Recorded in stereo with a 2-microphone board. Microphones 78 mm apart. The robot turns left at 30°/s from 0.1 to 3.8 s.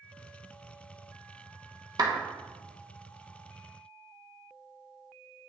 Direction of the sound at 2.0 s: 60° right (ahead or behind).